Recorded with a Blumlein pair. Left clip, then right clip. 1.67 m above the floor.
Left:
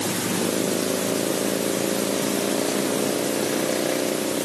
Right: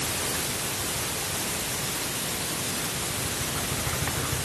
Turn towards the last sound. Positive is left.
No sound to turn to.